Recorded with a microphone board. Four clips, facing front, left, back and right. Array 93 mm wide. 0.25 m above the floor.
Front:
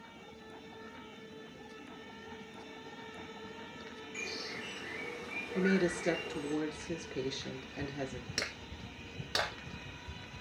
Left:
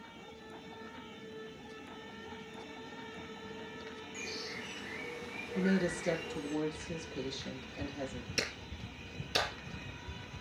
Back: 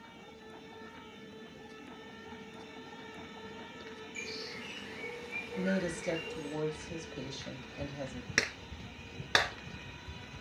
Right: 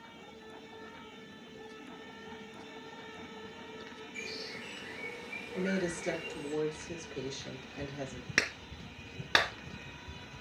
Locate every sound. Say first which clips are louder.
4.1 s a bird: right 1 dB, front 3 dB; 10° left, 6.5 m
5.5 s a woman speaking: left 2 dB, front 3 dB; 10° right, 4 m
8.4 s a clap: right 7 dB, back 5 dB; 125° right, 2 m